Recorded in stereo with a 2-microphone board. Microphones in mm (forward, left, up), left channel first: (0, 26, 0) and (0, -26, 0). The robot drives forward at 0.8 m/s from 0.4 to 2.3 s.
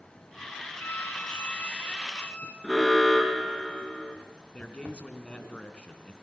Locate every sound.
0.8 s a violin: 40° left (ahead or behind), 2.5 m; by 2.5 s 30° left (ahead or behind), 3.5 m
2.6 s an alarm: 5° right (ahead or behind), 4 m
4.5 s a man speaking: 20° left (ahead or behind), 3 m